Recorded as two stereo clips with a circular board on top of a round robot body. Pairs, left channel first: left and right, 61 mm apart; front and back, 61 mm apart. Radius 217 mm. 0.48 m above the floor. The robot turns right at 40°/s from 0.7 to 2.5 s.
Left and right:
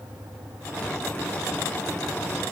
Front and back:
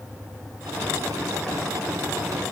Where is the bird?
No bird in this recording.